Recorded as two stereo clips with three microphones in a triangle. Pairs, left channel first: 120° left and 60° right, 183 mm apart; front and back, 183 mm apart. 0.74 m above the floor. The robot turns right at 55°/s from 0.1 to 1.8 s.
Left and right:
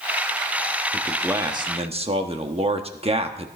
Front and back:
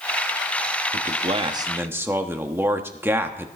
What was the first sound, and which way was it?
A man speaking, 155° right.